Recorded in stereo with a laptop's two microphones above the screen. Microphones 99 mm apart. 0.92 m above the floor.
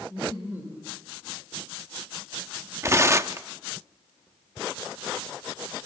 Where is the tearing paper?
30° right (ahead or behind), 0.6 m.